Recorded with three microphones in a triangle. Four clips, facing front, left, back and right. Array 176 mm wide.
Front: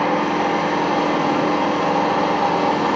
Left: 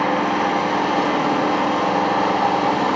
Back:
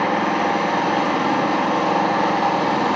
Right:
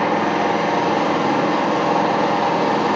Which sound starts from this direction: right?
An engine running, at 0.0 s.